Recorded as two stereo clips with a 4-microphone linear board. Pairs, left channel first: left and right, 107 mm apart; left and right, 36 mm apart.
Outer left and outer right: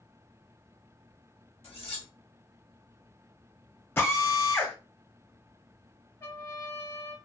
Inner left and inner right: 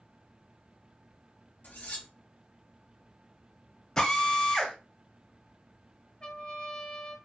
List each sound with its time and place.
1.6 s cutlery clinking: 65° left (ahead or behind), 1.4 m
4.0 s a drill: 20° left (ahead or behind), 0.8 m
6.2 s a trumpet: 30° left (ahead or behind), 1.2 m